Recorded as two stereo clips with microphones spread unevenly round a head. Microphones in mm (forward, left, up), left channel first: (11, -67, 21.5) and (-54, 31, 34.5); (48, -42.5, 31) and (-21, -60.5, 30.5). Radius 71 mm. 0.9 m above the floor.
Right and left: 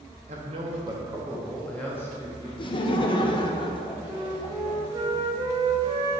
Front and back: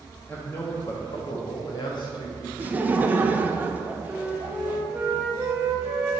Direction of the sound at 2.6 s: 100° right.